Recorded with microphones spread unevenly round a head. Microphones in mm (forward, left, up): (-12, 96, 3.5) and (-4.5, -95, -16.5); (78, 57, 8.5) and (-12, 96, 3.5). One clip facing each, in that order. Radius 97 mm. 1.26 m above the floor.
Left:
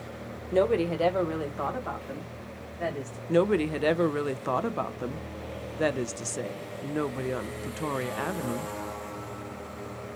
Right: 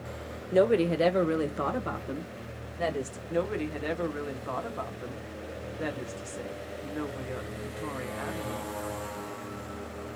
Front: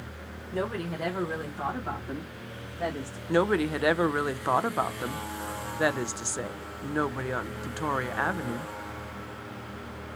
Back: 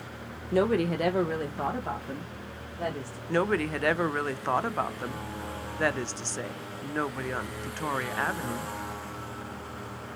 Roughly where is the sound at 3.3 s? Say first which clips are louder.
Left 7 dB, front 2 dB; ahead left.